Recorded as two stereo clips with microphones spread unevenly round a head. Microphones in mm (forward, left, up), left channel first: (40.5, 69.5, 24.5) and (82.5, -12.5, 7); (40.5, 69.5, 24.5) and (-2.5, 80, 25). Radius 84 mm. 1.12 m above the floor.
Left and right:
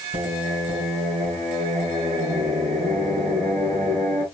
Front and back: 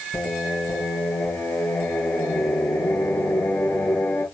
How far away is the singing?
About 5.5 m.